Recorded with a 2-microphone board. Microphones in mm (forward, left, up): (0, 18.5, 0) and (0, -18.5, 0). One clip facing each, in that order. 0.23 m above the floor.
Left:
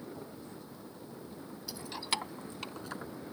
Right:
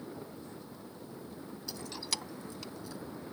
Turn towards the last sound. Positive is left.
turn(degrees=50)  # may be behind; listen again after turning